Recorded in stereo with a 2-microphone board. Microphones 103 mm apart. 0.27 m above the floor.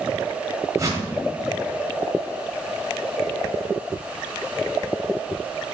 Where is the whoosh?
30° right (ahead or behind), 0.7 m.